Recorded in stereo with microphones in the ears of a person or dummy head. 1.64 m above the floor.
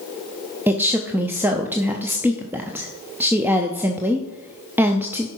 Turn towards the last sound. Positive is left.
turn(degrees=-10)  # may be behind; listen again after turning